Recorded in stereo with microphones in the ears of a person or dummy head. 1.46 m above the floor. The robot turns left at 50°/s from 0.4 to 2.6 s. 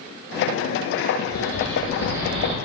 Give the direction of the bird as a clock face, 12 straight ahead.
11 o'clock.